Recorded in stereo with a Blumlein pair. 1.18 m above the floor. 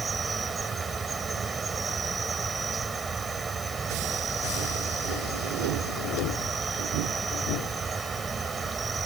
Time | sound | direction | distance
0.0 | an insect | 15° right | ?